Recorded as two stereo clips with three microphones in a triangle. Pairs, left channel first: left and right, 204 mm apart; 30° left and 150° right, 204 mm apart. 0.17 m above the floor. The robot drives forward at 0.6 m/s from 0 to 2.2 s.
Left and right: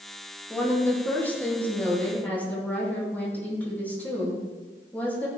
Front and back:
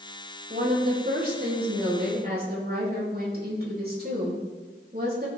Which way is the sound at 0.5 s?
170° left.